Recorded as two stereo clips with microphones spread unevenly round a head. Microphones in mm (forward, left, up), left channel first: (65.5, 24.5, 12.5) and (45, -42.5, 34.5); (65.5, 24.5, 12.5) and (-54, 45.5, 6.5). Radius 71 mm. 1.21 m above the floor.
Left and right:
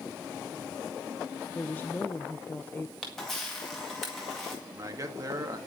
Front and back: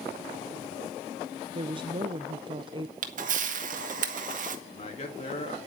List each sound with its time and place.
1.5 s a woman speaking: 130° left, 0.7 m
3.0 s a camera shutter: 160° left, 1.8 m
4.7 s a man speaking: 65° right, 2.5 m